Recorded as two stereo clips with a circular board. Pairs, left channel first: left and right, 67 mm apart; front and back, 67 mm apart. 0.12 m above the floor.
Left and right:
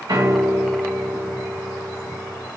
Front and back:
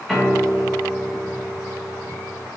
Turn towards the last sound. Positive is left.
turn(degrees=-85)